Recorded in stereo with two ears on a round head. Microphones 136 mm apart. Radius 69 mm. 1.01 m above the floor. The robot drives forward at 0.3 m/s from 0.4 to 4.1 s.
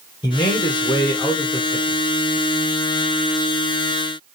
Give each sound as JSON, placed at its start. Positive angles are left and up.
{"t": 0.2, "sound": "a man speaking", "side_deg": 30, "distance_m": 0.9}